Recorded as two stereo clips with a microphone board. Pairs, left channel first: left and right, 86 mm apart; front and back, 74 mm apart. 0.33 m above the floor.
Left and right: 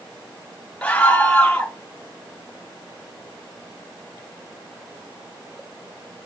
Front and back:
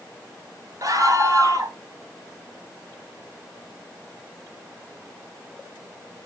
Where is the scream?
165° left, 2.5 m.